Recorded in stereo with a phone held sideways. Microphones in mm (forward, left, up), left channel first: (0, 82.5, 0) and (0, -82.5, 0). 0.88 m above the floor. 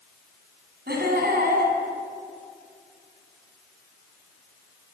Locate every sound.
0.9 s laughter: 75° right (ahead or behind), 7 m